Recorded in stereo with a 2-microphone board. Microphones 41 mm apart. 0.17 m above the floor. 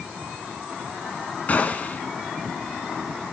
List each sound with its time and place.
1.5 s a gunshot: 40° left (ahead or behind), 2.0 m